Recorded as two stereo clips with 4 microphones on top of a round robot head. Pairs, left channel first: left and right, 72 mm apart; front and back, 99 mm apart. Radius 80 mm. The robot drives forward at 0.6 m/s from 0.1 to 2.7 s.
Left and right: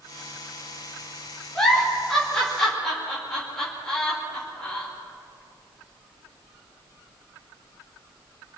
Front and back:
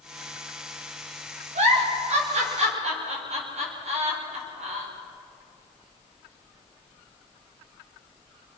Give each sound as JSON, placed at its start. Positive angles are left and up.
{"t": 1.6, "sound": "a giggle", "azimuth_deg": 175, "distance_m": 4.5}